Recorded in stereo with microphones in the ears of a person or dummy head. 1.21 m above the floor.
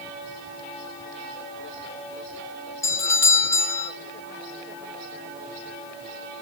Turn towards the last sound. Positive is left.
turn(degrees=15)  # may be behind; listen again after turning